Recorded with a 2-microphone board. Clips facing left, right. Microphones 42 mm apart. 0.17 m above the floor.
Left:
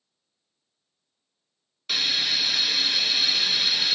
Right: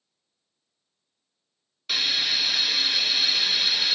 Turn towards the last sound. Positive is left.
turn(degrees=0)  # may be behind; listen again after turning